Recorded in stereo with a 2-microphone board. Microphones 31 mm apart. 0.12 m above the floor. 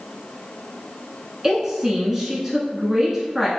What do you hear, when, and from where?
1.4 s a woman speaking: 20° right (ahead or behind), 1.1 m